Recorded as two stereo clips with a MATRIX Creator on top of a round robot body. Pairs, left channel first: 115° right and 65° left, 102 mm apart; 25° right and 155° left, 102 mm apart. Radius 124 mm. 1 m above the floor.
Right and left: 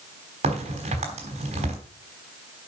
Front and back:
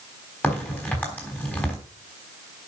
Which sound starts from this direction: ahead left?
A crack, at 0.4 s.